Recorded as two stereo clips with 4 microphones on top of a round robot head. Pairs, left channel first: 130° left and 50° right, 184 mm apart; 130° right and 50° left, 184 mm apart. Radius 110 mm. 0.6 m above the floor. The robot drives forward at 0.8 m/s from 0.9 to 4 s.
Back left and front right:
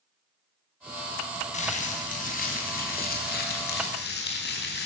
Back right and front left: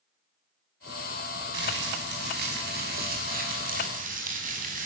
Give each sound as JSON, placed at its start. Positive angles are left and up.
{"t": 1.5, "sound": "crumpling", "azimuth_deg": 80, "distance_m": 5.5}